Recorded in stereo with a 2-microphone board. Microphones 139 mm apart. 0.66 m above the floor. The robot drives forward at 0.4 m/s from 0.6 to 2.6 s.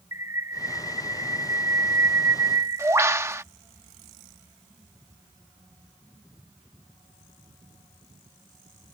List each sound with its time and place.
0.1 s a bird: 25° right (ahead or behind); by 3.4 s 20° right (ahead or behind)